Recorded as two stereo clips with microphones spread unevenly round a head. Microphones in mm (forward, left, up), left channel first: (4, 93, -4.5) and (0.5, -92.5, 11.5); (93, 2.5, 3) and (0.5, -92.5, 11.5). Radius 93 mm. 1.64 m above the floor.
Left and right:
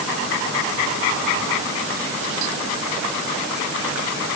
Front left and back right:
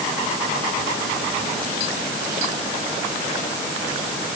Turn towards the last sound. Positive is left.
No sound to turn to.